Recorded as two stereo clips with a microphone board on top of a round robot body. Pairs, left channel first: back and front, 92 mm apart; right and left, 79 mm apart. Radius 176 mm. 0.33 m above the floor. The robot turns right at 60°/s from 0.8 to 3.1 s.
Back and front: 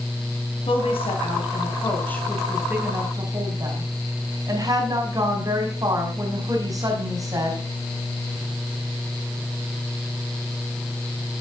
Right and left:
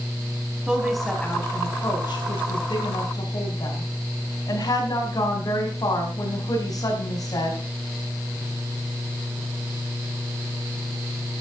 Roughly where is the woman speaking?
Behind.